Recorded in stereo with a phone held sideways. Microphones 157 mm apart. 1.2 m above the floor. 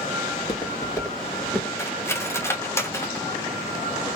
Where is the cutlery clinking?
15° left (ahead or behind), 0.7 m.